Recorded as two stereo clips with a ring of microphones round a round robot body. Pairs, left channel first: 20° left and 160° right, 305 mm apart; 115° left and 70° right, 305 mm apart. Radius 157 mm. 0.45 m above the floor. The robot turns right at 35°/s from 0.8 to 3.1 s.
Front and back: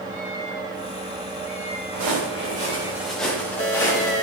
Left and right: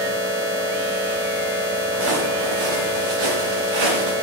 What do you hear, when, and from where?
1.9 s footsteps: 120° right, 4.5 m; by 4.1 s 55° right, 5 m